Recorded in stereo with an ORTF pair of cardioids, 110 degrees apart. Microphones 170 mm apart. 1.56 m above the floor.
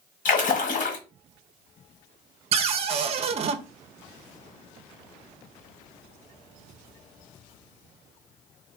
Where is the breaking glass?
No breaking glass in this recording.